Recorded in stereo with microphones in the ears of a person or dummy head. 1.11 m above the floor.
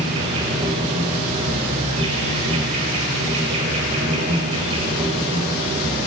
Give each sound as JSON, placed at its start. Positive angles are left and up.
{"t": 0.0, "sound": "an insect", "side_deg": -45, "distance_m": 3.0}